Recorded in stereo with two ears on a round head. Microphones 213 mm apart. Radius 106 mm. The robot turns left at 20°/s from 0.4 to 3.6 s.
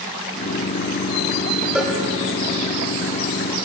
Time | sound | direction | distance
1.8 | a cowbell | centre (ahead or behind) | 2.5 m